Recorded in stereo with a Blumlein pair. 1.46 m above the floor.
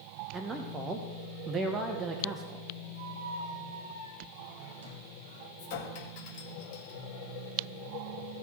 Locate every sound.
0.3 s a man speaking: 15° right, 0.9 m
3.0 s a squeak: 60° right, 1.4 m
5.6 s a clink: 45° left, 1.7 m